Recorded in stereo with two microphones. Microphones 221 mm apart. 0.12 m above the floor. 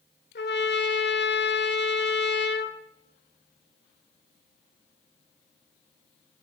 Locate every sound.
0.3 s a trumpet: 50° left (ahead or behind), 0.7 m